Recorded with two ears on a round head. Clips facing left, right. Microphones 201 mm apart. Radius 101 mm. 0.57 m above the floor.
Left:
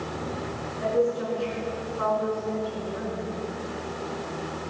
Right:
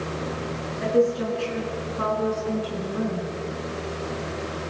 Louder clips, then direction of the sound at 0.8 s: Right 3 dB; 40° right (ahead or behind).